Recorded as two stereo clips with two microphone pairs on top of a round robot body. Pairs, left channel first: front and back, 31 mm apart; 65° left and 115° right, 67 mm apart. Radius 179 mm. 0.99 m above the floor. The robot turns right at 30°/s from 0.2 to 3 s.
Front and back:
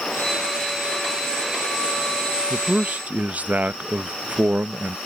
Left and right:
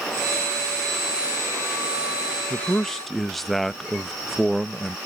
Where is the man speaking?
135° left; by 5.0 s 150° left.